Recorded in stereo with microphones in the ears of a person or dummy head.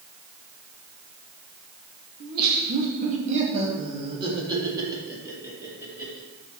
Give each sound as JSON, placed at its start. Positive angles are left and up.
{"t": 2.2, "sound": "laughter", "side_deg": -50, "distance_m": 2.0}